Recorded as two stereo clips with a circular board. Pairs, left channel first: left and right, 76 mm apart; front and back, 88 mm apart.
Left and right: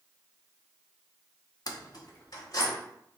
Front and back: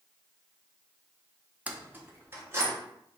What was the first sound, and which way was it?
Keys jangling, 110° left.